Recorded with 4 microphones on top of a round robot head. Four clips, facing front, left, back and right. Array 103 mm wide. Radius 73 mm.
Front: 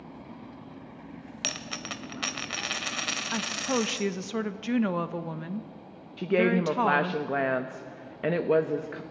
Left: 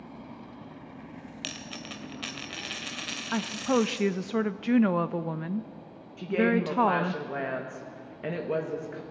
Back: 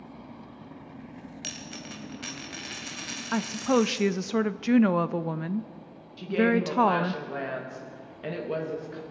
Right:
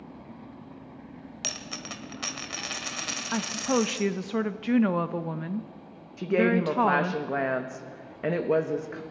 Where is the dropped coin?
25° right, 0.6 m.